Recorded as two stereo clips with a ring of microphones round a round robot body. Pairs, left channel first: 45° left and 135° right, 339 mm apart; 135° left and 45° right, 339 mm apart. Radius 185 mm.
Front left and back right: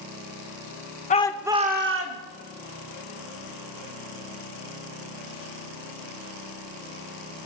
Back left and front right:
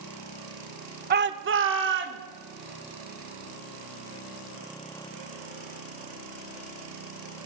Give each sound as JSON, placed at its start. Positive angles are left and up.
{"t": 1.1, "sound": "a shout", "azimuth_deg": -5, "distance_m": 1.2}